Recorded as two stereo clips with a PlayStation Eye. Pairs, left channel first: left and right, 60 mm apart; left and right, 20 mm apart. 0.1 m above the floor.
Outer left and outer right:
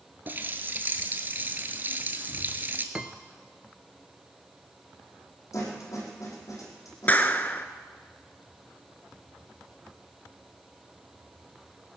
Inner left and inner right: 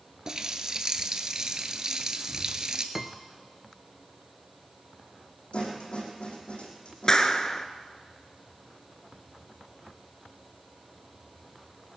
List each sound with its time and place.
0.3 s a running tap: 35° right (ahead or behind), 1.1 m
3.0 s a piano: 20° right (ahead or behind), 0.6 m
5.5 s a snare drum: 60° left (ahead or behind), 5 m
7.1 s a clap: 30° left (ahead or behind), 0.9 m